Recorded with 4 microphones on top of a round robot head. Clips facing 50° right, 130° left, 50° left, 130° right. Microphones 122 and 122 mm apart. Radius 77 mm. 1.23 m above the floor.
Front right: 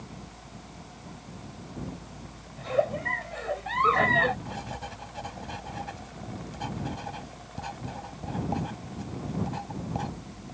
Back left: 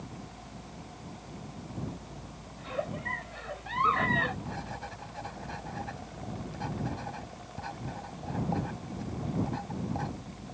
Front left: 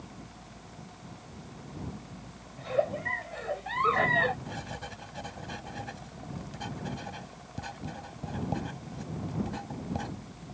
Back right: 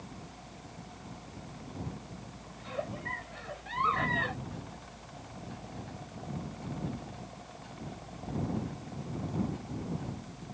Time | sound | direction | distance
2.6 | a giggle | straight ahead | ?
4.5 | writing | 25° left | ?